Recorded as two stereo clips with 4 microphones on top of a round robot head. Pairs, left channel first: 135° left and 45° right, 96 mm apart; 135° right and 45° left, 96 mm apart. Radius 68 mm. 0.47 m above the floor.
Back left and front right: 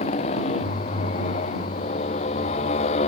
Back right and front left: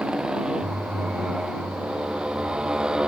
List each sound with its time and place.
0.0 s a motorcycle: 125° left